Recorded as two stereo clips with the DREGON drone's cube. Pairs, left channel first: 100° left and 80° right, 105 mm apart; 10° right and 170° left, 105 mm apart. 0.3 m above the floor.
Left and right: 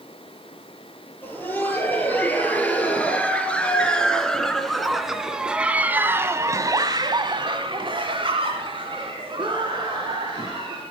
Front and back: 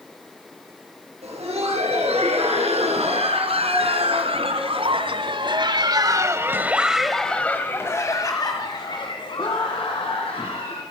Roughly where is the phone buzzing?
I don't hear a phone buzzing.